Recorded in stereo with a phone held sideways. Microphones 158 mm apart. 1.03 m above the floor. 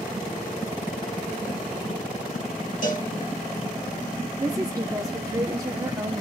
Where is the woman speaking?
20° right (ahead or behind), 0.9 m.